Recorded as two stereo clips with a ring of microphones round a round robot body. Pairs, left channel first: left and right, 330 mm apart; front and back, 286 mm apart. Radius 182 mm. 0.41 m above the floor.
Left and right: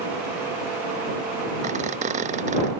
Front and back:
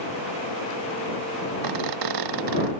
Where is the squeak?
160° right.